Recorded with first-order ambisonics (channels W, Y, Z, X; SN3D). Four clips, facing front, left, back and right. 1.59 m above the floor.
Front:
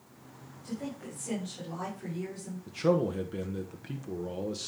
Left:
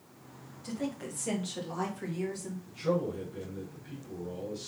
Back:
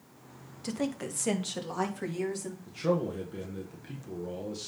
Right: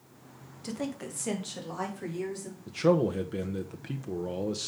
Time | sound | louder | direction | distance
0.6 | a woman speaking | right 1 dB, back 6 dB | 155° right | 1.8 m
2.7 | a man speaking | right 6 dB, front 3 dB | 70° right | 1.2 m